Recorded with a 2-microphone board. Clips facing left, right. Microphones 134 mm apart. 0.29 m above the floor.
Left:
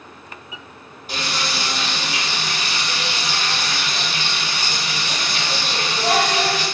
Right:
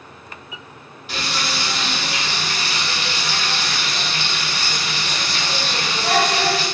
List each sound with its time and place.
1.1 s frying: 40° left (ahead or behind), 1.6 m